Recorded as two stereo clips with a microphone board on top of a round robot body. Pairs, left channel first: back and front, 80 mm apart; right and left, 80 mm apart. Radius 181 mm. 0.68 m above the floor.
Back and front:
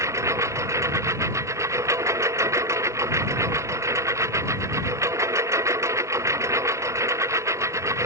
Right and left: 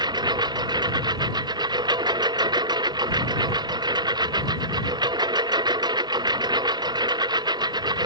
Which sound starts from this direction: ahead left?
A lawn mower, at 0.0 s.